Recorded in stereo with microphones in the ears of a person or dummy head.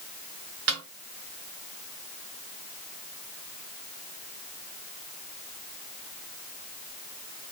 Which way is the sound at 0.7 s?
65° right (ahead or behind).